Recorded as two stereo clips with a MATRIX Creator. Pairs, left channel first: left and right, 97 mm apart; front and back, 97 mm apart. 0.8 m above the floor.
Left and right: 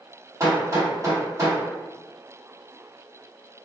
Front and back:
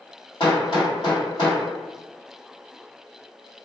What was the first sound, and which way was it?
Hammering, 35° right.